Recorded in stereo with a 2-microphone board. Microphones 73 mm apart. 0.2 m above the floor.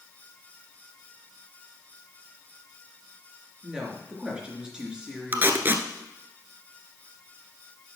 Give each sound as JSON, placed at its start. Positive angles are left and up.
{"t": 3.6, "sound": "a woman speaking", "side_deg": -10, "distance_m": 3.0}
{"t": 5.3, "sound": "tape being pulled", "side_deg": -30, "distance_m": 1.0}